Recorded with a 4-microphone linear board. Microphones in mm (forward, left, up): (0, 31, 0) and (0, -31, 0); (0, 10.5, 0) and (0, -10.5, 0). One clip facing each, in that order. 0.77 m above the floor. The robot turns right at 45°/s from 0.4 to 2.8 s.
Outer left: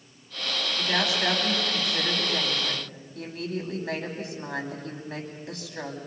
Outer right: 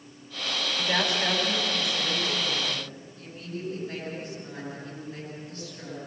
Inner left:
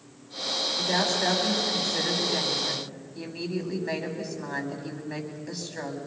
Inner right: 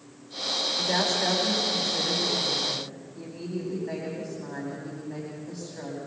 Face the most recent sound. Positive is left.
turn(degrees=85)